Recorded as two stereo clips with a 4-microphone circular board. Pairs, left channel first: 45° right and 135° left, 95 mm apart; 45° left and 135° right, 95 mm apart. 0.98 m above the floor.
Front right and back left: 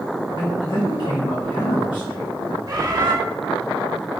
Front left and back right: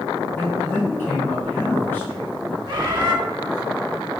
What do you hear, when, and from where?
0.4 s a man speaking: 20° right, 1.6 m
2.7 s a bird: 175° right, 1.0 m